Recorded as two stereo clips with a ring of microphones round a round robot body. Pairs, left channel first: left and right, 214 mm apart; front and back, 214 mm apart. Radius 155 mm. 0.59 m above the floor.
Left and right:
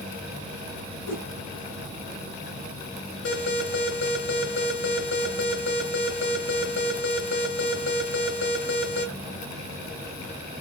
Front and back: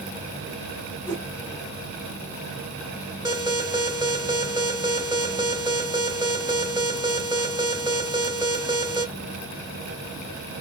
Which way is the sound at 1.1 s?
125° left.